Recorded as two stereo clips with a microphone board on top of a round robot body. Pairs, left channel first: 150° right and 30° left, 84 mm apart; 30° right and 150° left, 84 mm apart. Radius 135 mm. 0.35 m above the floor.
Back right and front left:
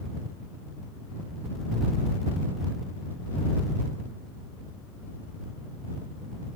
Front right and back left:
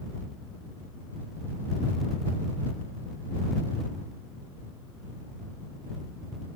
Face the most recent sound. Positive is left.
No sound to turn to.